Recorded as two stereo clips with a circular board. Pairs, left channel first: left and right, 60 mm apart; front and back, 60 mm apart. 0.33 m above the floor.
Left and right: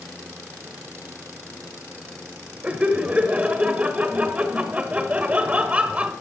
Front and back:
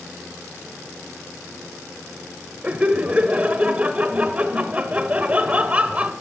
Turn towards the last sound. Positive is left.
turn(degrees=-135)